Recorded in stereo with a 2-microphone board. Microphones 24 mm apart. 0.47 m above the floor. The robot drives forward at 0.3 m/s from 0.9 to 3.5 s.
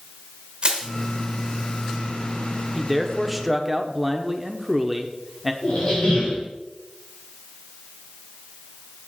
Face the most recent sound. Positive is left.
turn(degrees=45)  # may be behind; listen again after turning